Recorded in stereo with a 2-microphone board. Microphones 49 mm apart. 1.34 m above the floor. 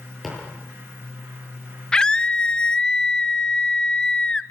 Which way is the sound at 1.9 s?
15° left (ahead or behind).